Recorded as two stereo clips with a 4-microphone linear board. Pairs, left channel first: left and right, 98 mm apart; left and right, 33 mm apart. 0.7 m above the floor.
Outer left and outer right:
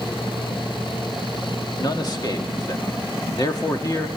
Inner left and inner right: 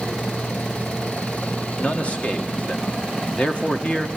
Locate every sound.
1.8 s a man speaking: 45° left (ahead or behind), 1.7 m